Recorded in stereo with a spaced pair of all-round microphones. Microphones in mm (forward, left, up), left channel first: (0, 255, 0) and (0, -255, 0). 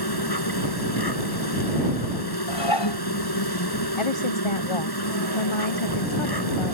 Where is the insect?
50° left (ahead or behind).